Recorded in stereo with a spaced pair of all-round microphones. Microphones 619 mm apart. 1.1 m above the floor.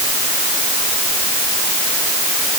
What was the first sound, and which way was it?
Only background noise.